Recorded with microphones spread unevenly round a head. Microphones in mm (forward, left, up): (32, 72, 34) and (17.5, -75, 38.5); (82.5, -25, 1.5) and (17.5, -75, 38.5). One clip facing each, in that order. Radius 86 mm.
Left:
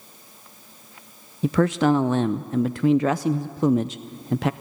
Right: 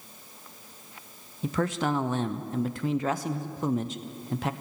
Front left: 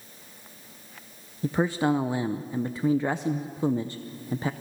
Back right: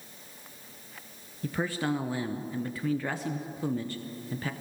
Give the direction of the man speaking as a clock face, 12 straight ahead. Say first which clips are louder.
Left 8 dB, front left 6 dB; 9 o'clock.